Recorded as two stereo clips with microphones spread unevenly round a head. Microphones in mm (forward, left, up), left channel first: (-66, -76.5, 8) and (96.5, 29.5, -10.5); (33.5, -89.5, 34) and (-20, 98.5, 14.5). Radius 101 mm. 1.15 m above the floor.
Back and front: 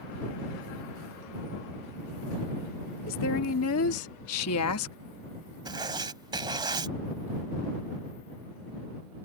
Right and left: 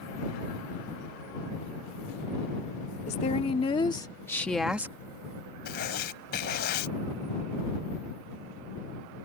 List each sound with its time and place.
3.1 s a woman speaking: 130° right; by 5.0 s straight behind
5.7 s writing: 35° right